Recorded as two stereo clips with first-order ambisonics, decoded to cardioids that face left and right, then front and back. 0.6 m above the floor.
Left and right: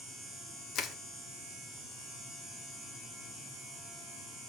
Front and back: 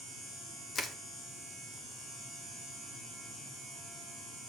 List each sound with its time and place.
0.8 s crushing: 60° left, 1.0 m